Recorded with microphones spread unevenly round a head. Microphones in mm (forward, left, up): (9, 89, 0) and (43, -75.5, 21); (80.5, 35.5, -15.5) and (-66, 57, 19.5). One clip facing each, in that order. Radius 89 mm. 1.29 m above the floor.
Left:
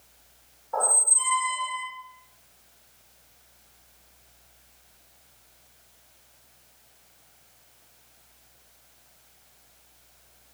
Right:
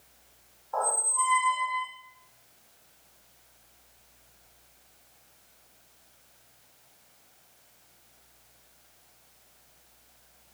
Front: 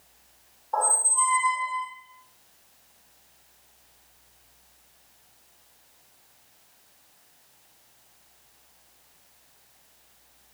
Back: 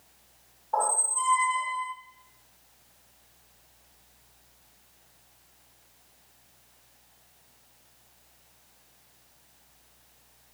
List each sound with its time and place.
0.7 s a squeak: 110° left, 1.0 m